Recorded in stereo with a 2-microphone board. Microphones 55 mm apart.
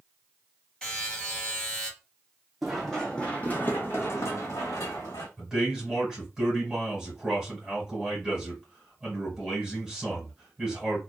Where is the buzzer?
10° left (ahead or behind), 2 m.